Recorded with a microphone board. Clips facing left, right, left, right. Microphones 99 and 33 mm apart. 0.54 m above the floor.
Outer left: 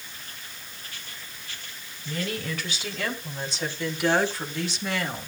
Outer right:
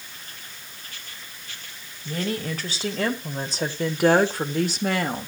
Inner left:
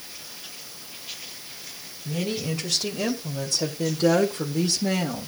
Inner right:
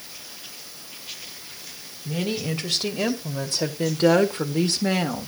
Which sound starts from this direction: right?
A woman speaking, at 2.0 s.